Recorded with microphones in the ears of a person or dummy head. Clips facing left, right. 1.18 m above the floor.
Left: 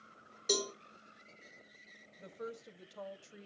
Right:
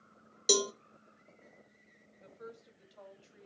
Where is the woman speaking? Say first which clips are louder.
Left 5 dB; 55° left (ahead or behind), 1.0 m.